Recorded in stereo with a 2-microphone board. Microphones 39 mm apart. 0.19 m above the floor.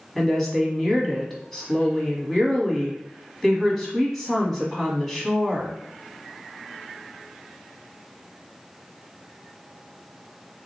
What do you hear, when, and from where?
0.1 s a woman speaking: 5° left (ahead or behind), 1.1 m